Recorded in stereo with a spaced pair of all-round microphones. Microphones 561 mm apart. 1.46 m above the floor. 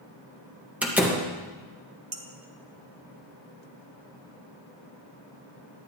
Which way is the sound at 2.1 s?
50° right (ahead or behind).